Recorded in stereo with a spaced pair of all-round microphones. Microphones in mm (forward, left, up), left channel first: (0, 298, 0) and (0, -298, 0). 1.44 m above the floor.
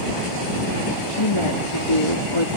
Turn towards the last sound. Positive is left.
turn(degrees=55)  # may be behind; listen again after turning